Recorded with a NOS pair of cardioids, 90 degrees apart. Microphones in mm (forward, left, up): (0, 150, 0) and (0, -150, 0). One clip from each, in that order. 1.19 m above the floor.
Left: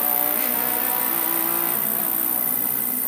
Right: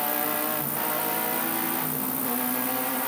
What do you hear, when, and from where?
0.0 s an insect: 45° left